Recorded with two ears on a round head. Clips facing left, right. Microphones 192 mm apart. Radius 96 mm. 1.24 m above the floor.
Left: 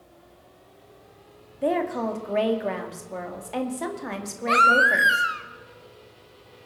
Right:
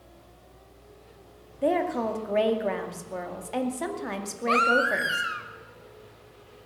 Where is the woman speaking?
Centre (ahead or behind), 2.0 m.